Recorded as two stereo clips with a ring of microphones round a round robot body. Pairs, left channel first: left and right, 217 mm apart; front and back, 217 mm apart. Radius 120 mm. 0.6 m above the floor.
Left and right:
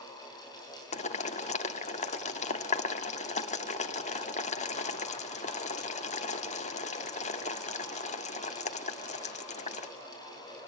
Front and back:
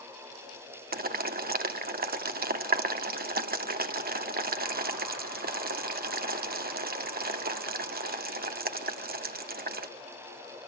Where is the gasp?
I don't hear a gasp.